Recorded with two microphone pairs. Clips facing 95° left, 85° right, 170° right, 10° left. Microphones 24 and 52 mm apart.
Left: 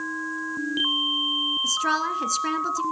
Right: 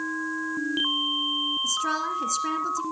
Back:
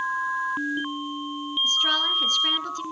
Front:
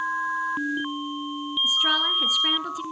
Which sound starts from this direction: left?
A woman speaking, at 1.6 s.